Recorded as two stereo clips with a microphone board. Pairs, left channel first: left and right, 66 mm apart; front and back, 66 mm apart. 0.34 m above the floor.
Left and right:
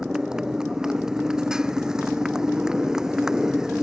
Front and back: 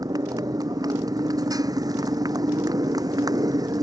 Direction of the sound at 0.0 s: 170° right.